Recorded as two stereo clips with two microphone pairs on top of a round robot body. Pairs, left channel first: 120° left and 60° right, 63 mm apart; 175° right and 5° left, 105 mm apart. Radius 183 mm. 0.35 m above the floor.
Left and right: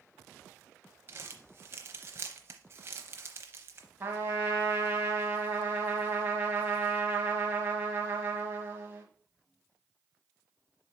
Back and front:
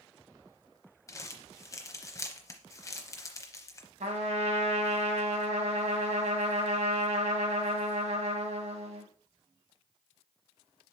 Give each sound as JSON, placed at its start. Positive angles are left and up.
{"t": 1.1, "sound": "crumpling", "azimuth_deg": -115, "distance_m": 0.8}
{"t": 4.0, "sound": "a trumpet", "azimuth_deg": 0, "distance_m": 1.6}